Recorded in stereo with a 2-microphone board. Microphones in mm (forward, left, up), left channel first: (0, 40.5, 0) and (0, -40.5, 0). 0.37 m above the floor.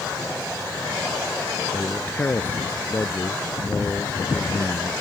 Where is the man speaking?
25° left (ahead or behind).